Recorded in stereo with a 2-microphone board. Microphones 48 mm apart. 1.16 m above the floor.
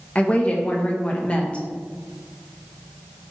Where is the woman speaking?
25° left (ahead or behind), 0.6 m.